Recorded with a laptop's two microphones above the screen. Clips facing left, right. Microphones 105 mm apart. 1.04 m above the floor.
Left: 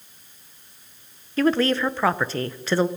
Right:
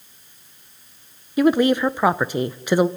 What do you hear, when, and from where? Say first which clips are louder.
1.4 s a woman speaking: right 4 dB; 15° right (ahead or behind), 0.6 m